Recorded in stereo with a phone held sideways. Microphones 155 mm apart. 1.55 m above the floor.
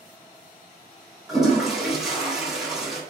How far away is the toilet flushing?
About 1.1 m.